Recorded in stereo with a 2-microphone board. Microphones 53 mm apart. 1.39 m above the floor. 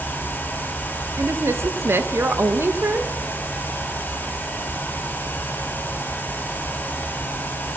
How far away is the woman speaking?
About 2 m.